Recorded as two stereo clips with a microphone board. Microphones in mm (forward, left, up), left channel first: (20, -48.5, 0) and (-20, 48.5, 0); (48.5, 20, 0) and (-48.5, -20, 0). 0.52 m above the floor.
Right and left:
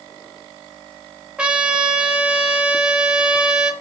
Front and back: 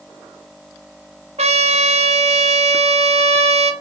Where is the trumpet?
165° right, 0.5 m.